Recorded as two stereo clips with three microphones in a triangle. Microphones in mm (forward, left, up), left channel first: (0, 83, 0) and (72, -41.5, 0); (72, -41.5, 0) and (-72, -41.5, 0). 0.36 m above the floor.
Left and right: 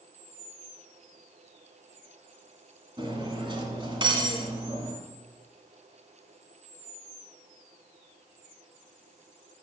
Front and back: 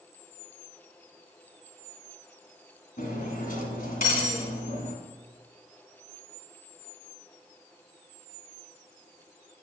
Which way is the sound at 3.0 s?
5° right.